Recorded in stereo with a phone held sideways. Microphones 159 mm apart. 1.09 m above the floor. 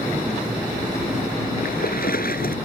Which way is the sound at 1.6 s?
75° left (ahead or behind).